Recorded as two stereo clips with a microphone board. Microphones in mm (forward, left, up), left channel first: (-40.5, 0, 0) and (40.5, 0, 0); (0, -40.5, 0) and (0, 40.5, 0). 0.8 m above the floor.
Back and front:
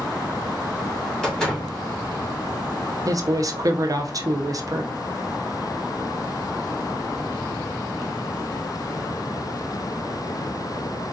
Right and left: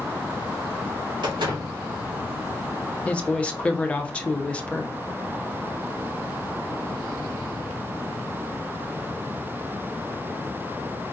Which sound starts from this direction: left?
A door slam, at 1.2 s.